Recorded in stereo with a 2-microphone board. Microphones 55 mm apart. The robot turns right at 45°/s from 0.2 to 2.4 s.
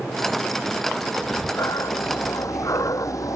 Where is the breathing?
50° left; by 3.4 s 100° left.